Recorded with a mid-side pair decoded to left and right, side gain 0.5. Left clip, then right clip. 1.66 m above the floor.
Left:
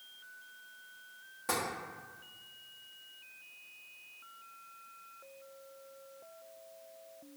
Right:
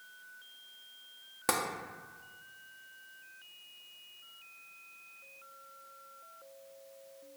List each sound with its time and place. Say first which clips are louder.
1.5 s tapping: right 3 dB; 65° right, 0.7 m